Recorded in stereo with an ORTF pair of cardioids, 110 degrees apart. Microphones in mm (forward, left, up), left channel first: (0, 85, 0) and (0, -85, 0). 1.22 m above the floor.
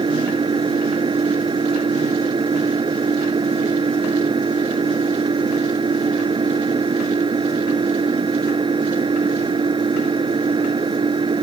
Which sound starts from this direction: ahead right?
An engine running, at 0.0 s.